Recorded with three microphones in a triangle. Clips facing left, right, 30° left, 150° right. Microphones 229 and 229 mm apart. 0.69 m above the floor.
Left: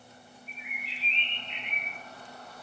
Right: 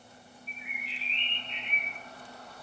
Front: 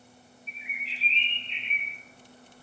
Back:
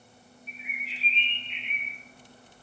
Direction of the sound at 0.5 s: 90° left.